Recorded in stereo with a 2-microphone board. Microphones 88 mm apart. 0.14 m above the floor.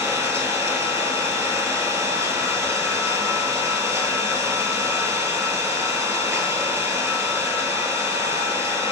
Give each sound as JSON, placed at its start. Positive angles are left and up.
{"t": 0.0, "sound": "an engine running", "side_deg": -30, "distance_m": 0.9}